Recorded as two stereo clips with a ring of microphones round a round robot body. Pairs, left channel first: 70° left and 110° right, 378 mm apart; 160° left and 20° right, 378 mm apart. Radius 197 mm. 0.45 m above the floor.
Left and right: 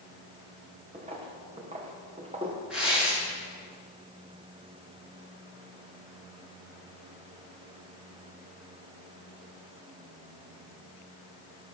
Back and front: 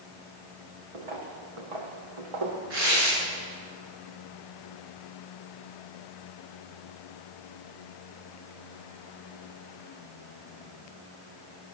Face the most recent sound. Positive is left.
turn(degrees=-25)